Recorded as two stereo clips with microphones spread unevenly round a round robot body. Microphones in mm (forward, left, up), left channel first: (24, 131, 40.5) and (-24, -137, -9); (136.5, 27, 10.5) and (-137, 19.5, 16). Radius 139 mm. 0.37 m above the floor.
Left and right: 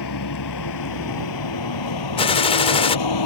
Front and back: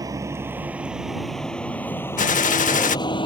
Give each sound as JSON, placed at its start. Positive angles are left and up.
{"t": 0.0, "sound": "a vehicle", "azimuth_deg": 105}
{"t": 2.2, "sound": "a gunshot", "azimuth_deg": 10}